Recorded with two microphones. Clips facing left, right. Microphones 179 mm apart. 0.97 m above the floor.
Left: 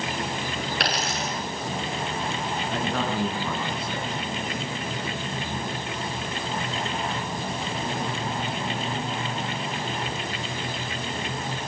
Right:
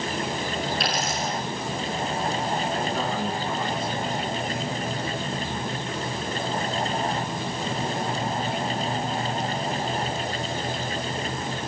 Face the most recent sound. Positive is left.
turn(degrees=80)